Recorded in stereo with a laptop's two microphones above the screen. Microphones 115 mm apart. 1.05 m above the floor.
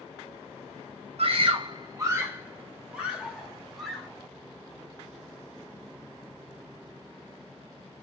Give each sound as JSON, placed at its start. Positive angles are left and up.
{"t": 1.2, "sound": "a scream", "side_deg": -60, "distance_m": 0.6}